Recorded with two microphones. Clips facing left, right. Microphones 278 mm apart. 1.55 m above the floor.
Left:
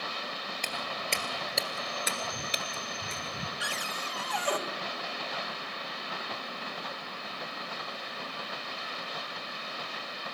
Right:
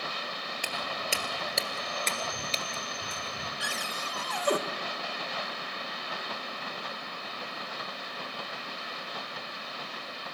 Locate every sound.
0.6 s footsteps: 10° right (ahead or behind), 2 m; by 3.5 s 30° left (ahead or behind), 1.7 m
3.6 s a cupboard door: 50° right (ahead or behind), 1.6 m